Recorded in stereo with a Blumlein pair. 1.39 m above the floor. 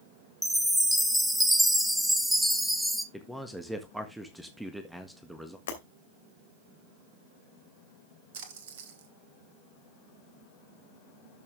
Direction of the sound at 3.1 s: 5° right.